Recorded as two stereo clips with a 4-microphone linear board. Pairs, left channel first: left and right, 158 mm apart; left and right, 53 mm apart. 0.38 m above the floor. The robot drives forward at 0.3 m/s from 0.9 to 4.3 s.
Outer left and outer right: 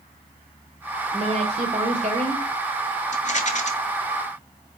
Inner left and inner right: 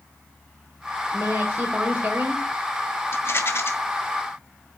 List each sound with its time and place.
1.1 s a woman speaking: 45° right (ahead or behind), 1.5 m
3.1 s a rattle: 55° left (ahead or behind), 1.8 m; by 3.7 s 50° left (ahead or behind), 1.8 m